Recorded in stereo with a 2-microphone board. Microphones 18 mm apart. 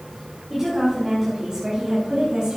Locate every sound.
0.5 s a woman speaking: 15° right (ahead or behind), 3.5 m; by 2.6 s 50° right (ahead or behind), 2.5 m